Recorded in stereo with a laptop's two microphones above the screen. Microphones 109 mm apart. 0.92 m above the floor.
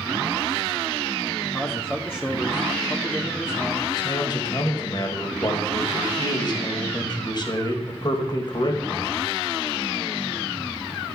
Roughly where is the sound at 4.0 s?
Left.